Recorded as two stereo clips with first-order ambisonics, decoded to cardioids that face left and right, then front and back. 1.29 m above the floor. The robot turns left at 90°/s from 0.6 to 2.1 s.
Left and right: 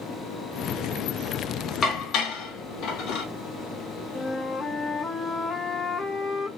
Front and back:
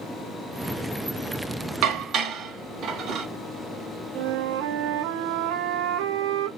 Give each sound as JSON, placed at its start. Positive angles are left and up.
{"t": 1.8, "sound": "dishes clattering", "azimuth_deg": 155, "distance_m": 0.9}
{"t": 4.2, "sound": "a flute", "azimuth_deg": 165, "distance_m": 0.6}